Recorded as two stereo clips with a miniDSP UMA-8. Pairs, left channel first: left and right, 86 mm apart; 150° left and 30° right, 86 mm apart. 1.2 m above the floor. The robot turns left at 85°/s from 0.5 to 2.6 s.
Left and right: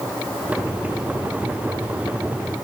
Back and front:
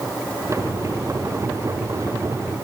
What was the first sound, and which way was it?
Only background noise.